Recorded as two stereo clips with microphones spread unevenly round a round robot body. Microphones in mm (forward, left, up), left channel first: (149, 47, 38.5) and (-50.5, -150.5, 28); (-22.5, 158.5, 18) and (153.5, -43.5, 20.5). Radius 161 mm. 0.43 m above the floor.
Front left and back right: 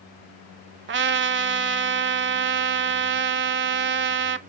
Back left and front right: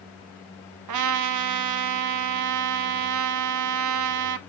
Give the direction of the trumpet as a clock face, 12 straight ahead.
3 o'clock.